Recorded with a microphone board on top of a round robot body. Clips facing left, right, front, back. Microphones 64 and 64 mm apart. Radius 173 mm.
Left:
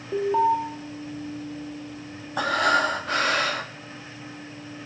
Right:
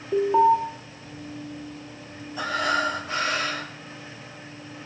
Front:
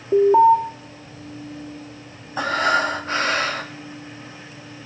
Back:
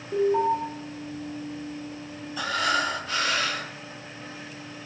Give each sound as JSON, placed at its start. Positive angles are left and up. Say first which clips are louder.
{"t": 0.1, "sound": "an alarm", "louder": "right 3 dB, front 10 dB", "azimuth_deg": 0, "distance_m": 1.5}
{"t": 2.4, "sound": "breathing", "louder": "left 3 dB, front 6 dB", "azimuth_deg": 55, "distance_m": 1.4}